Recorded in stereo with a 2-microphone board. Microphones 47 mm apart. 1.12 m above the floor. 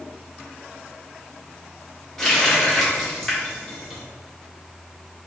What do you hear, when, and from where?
2.2 s a running tap: 10° left (ahead or behind), 1.6 m